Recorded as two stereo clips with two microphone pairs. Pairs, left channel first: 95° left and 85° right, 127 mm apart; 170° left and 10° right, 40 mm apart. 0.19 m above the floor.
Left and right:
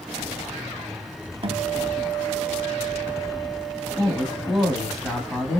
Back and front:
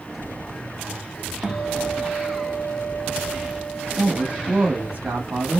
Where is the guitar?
80° right, 0.7 m.